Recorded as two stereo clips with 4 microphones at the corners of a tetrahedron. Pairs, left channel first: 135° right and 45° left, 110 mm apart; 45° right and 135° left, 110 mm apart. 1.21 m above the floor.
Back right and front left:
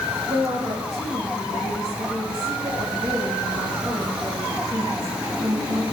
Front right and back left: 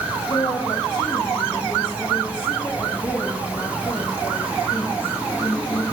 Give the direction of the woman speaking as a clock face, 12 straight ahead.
12 o'clock.